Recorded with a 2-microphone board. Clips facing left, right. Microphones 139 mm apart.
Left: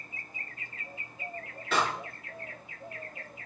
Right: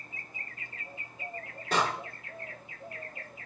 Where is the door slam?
40° right (ahead or behind), 5 m.